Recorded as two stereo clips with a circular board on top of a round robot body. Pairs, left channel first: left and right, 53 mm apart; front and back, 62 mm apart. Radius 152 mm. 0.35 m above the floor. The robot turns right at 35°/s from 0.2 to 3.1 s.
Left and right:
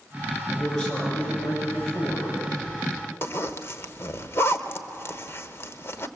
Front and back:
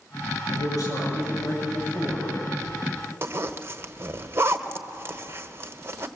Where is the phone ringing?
I don't hear a phone ringing.